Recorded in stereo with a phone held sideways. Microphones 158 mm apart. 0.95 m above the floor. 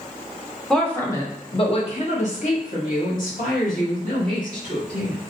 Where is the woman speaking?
Centre (ahead or behind), 0.6 m; by 5.2 s 70° left (ahead or behind), 2 m.